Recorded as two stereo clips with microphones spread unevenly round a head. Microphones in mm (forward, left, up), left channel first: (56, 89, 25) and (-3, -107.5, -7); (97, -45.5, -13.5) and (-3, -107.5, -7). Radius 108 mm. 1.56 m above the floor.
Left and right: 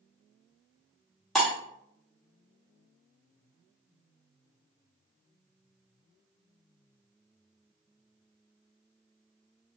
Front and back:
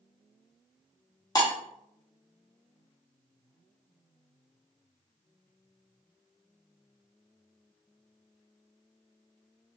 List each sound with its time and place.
1.4 s breaking glass: straight ahead, 1.3 m